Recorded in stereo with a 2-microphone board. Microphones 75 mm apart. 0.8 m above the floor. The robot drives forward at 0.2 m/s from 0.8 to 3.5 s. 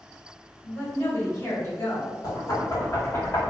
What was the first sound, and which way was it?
A woman speaking, 45° left (ahead or behind).